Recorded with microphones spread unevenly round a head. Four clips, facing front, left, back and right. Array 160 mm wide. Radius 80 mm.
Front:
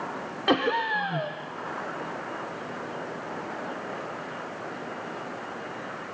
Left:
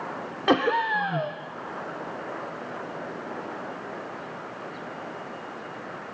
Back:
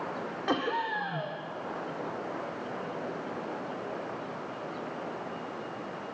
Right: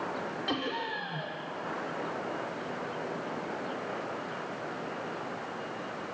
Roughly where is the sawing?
I don't hear sawing.